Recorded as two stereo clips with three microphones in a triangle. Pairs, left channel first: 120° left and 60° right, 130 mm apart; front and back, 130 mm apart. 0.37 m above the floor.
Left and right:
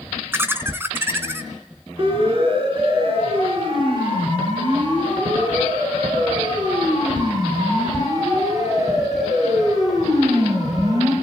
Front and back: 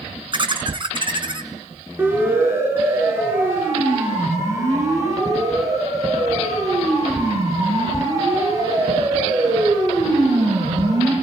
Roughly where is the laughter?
Behind right.